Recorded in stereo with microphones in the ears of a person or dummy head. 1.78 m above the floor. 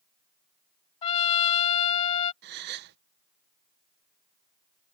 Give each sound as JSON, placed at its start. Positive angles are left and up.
{"t": 1.0, "sound": "a trumpet", "side_deg": 30}
{"t": 2.4, "sound": "a gasp", "side_deg": -60}